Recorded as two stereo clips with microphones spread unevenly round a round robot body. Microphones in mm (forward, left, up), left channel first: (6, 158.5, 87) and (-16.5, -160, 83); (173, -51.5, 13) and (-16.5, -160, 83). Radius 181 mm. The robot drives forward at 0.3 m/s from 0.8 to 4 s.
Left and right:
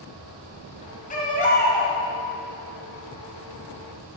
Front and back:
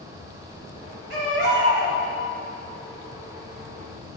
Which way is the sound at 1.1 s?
150° left.